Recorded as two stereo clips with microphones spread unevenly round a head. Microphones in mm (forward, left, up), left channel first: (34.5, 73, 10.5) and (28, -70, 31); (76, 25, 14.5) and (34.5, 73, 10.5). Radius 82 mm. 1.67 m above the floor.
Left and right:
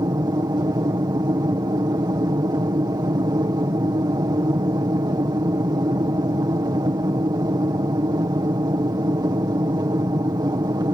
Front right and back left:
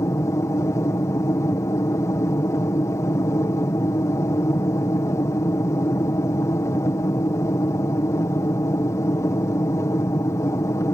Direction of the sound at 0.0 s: 35° right.